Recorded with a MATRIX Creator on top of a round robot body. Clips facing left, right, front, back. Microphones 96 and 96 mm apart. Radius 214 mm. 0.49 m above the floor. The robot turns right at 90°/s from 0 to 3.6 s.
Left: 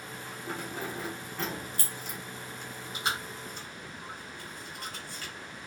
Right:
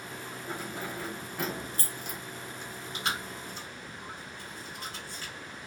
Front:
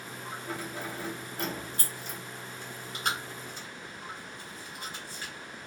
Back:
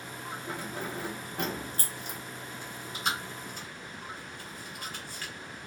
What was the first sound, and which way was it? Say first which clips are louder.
Keys jangling: left 1 dB, even; 110° left.